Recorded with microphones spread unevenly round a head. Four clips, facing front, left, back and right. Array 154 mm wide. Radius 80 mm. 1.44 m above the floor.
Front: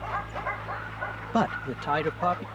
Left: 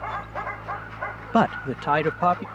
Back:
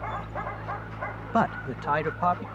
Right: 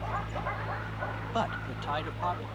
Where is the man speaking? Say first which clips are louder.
Left 12 dB, back 1 dB; 70° left; by 2.5 s 80° left.